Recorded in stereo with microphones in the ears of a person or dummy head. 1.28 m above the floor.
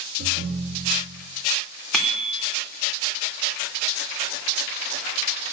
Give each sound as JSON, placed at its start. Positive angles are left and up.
{"t": 0.2, "sound": "a ringtone", "side_deg": -55, "distance_m": 1.1}
{"t": 1.9, "sound": "a bicycle bell", "side_deg": -5, "distance_m": 3.0}